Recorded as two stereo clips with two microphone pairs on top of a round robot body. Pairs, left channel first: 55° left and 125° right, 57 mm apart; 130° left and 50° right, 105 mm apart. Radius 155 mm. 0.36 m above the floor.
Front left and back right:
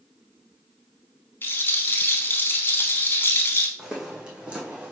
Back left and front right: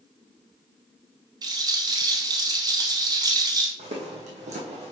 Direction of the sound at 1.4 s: 5° left.